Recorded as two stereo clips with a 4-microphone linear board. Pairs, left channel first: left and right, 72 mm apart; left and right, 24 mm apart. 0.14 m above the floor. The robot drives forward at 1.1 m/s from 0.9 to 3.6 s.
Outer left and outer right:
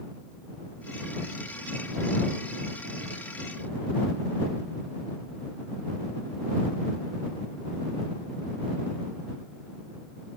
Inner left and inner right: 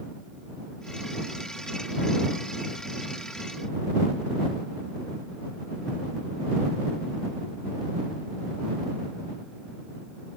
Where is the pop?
I don't hear a pop.